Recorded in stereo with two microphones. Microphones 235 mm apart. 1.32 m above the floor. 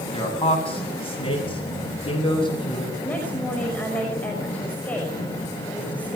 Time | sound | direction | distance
0.1 | a man speaking | 25° left (ahead or behind) | 8 m
3.0 | a woman speaking | 5° left (ahead or behind) | 5.5 m